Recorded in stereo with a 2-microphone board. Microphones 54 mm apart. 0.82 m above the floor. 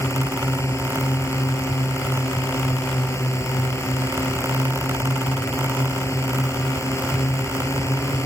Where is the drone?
65° left (ahead or behind).